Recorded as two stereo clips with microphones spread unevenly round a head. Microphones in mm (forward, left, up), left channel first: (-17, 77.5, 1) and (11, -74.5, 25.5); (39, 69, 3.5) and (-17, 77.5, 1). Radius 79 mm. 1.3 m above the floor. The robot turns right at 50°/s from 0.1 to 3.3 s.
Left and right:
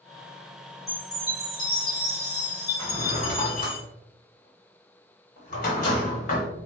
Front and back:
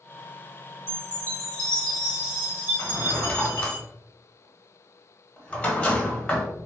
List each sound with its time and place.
0.9 s a chime: 25° left, 1.4 m; by 3.8 s 150° left, 1.4 m
2.8 s a drawer: 30° left, 1.2 m; by 6.5 s 55° left, 1.2 m